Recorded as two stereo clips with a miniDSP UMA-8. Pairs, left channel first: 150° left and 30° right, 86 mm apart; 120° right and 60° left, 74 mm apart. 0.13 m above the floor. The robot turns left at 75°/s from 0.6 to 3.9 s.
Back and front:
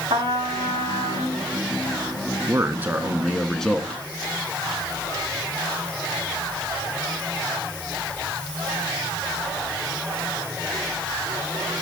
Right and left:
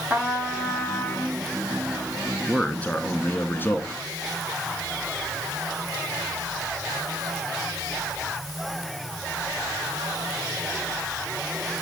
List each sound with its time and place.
0.1 s a trumpet: 10° right, 6.5 m; by 1.4 s 65° right, 6.5 m
2.5 s a man speaking: 45° right, 1.3 m; by 4.0 s 155° right, 1.3 m